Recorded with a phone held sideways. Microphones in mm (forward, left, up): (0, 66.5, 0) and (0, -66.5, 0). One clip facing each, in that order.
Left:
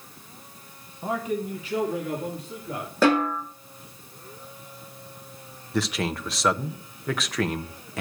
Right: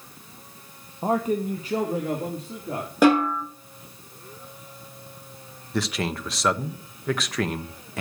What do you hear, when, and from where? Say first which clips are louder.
1.0 s a man speaking: right 4 dB; 50° right (ahead or behind), 0.9 m; by 2.9 s 35° right (ahead or behind), 3.5 m
3.0 s a snare drum: right 3 dB; 15° right (ahead or behind), 7 m
5.7 s a man speaking: even; centre (ahead or behind), 0.9 m